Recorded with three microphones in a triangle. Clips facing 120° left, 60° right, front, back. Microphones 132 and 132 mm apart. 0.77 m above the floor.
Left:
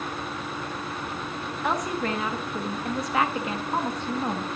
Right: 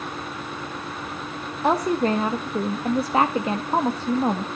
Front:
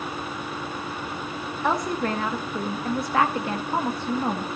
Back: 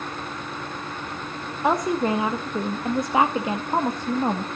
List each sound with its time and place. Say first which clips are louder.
1.6 s a woman speaking: right 7 dB, back 4 dB; 115° right, 0.7 m